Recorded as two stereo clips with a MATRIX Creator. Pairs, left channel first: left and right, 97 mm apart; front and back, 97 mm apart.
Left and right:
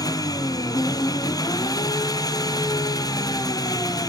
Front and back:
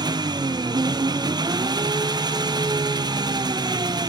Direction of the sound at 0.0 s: 140° left.